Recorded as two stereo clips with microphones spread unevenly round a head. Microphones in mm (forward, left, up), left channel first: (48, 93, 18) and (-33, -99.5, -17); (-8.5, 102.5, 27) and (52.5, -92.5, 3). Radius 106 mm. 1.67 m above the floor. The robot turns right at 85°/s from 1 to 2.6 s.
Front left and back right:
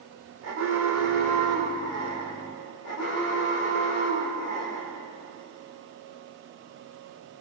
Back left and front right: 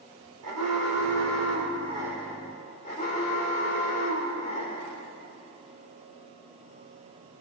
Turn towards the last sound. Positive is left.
turn(degrees=55)